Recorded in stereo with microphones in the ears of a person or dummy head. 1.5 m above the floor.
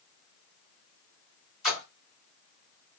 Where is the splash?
5° right (ahead or behind), 2 m.